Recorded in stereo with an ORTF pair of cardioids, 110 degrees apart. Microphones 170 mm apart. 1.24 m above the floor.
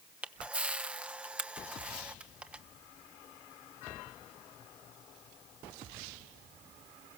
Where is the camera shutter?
5° right, 1.2 m.